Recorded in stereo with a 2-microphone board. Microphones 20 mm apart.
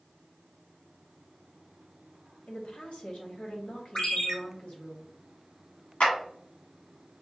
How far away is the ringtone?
About 1.2 m.